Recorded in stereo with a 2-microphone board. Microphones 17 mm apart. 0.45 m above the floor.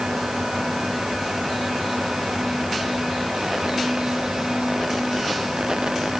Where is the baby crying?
I don't hear a baby crying.